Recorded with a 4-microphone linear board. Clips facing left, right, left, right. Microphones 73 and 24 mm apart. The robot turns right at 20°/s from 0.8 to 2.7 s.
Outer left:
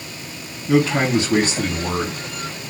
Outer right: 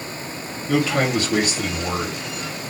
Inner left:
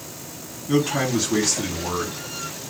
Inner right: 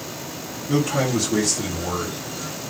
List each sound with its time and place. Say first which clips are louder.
0.7 s a man speaking: outer left 3 dB, even; 25° left (ahead or behind), 1.4 m; by 2.2 s 50° left (ahead or behind), 1.4 m